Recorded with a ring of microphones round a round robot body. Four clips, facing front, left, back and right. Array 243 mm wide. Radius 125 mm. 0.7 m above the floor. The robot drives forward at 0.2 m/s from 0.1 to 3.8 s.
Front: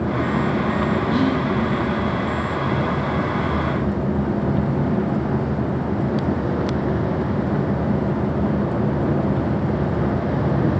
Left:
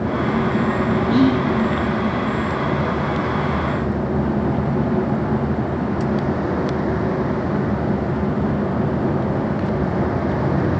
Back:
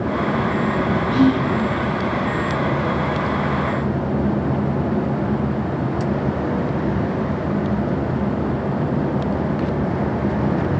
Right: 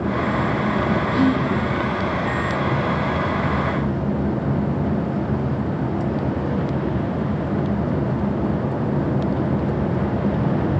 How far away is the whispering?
About 9 m.